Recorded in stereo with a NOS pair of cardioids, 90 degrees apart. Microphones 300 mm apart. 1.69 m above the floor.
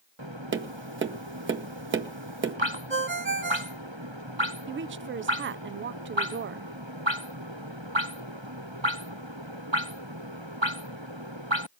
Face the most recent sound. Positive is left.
turn(degrees=-40)